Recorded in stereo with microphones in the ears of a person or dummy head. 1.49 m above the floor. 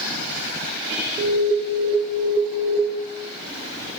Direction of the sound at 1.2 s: 20° right (ahead or behind).